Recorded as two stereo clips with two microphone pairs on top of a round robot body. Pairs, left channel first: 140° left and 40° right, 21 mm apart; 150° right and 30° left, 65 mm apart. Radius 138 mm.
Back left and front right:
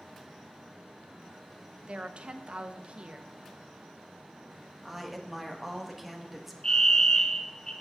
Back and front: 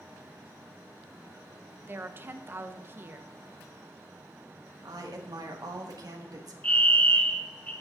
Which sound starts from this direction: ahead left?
A woman speaking, at 4.8 s.